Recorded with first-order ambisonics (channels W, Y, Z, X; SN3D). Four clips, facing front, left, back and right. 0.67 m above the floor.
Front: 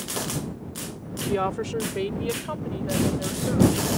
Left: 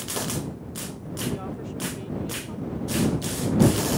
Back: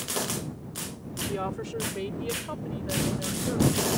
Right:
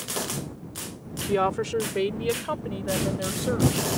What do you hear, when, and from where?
1.3 s a woman speaking: 60° right; by 3.9 s 80° right